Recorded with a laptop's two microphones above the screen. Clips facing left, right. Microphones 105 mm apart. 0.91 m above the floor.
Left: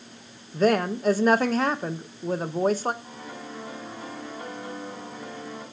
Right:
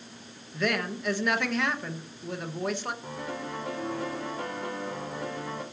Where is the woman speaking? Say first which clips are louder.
Left 8 dB; 35° left (ahead or behind), 0.8 m.